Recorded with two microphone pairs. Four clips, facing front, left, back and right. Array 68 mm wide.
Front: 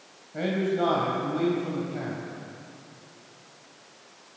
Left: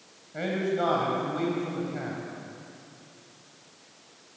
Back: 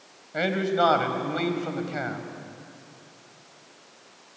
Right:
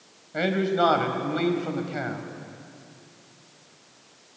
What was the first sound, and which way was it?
A man speaking, 150° right.